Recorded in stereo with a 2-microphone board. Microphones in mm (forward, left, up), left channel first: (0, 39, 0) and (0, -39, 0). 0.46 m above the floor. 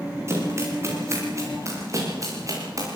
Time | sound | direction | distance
0.3 | running footsteps | 35° right (ahead or behind) | 9.5 m